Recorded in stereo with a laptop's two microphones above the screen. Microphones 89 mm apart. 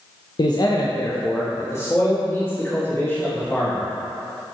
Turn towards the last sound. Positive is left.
turn(degrees=15)  # may be behind; listen again after turning